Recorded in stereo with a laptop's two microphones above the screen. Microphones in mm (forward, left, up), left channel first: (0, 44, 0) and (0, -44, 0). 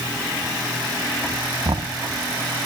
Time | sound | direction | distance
1.6 | knocking | 55° right (ahead or behind) | ?